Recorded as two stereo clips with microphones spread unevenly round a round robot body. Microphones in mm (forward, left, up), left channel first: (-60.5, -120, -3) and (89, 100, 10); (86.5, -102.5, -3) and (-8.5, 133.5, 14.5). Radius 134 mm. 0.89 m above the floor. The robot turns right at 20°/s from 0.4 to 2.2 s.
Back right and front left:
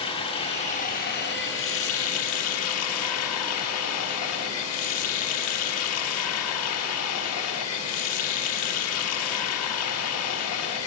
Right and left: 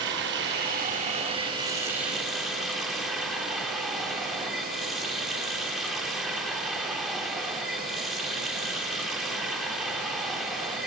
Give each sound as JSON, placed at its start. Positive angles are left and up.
{"t": 0.0, "sound": "running water", "azimuth_deg": 165, "distance_m": 0.9}